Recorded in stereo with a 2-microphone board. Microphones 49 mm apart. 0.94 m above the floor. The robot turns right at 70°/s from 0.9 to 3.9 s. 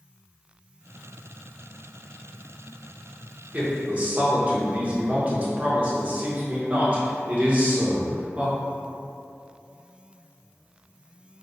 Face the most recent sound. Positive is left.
turn(degrees=-30)  # may be behind; listen again after turning